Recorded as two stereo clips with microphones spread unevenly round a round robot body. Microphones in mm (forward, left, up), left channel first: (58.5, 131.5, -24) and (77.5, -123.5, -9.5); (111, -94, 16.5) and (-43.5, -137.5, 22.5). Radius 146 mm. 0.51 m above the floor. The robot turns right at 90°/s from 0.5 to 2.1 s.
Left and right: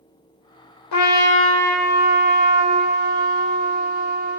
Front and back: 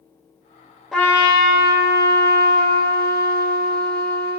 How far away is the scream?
No scream in this recording.